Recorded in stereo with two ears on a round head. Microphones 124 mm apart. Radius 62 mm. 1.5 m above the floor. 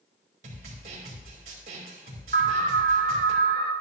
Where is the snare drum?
60° right (ahead or behind), 3.5 m.